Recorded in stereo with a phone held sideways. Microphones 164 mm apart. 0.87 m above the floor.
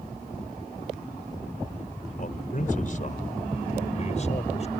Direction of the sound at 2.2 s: 60° left (ahead or behind).